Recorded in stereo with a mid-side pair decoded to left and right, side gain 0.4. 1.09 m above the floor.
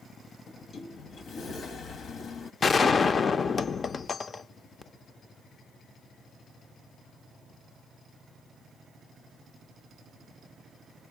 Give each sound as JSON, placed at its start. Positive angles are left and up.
{"t": 0.5, "sound": "a sliding door", "azimuth_deg": 65, "distance_m": 1.0}
{"t": 2.6, "sound": "a gunshot", "azimuth_deg": 45, "distance_m": 0.5}